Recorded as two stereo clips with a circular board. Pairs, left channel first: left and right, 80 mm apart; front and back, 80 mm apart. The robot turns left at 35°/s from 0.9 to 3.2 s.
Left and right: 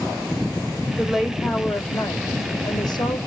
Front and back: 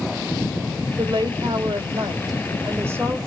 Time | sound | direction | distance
1.0 | a woman speaking | 170° right | 3 m